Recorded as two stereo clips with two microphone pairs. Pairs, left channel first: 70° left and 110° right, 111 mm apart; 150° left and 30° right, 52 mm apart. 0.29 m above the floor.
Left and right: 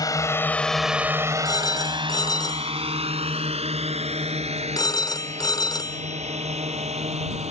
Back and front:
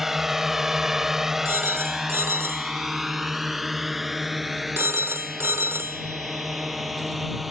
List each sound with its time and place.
0.0 s a drone: 55° left; by 7.5 s 115° right
1.4 s a phone ringing: 15° left